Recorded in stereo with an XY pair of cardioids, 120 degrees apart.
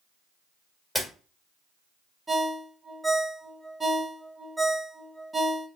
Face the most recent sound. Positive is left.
turn(degrees=-20)